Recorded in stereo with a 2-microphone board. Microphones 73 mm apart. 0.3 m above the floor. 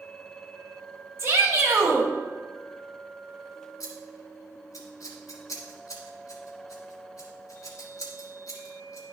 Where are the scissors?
55° left (ahead or behind), 1.6 m.